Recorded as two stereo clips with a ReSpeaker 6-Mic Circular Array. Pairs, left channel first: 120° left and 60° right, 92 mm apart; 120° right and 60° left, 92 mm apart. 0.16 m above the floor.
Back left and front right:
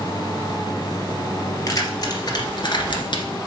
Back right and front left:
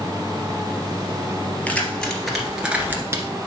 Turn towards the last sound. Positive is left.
turn(degrees=110)